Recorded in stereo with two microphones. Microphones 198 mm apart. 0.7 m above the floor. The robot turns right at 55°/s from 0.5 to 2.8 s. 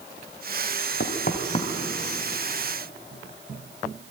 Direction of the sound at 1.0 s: 60° left (ahead or behind).